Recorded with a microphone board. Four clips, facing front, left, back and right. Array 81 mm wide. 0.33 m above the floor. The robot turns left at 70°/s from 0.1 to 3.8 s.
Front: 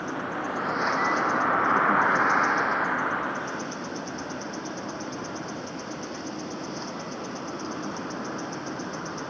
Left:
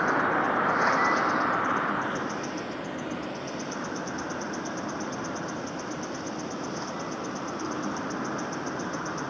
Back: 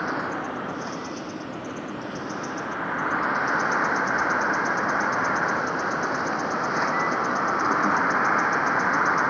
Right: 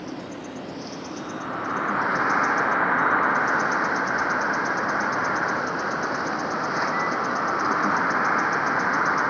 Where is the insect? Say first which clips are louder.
Left 10 dB, back 3 dB; 115° left; by 9.3 s 145° right.